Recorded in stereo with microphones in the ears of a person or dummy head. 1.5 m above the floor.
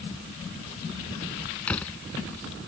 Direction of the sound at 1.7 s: 5° left (ahead or behind).